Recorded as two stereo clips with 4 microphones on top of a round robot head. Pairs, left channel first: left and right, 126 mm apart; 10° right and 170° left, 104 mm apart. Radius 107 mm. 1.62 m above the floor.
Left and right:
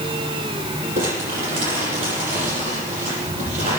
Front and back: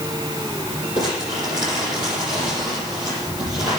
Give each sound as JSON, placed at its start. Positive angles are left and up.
{"t": 1.0, "sound": "crumpling", "azimuth_deg": -70, "distance_m": 7.5}